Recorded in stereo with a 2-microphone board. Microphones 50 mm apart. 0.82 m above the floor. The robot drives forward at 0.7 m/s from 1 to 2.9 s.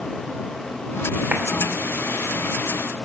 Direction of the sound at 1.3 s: 25° right (ahead or behind).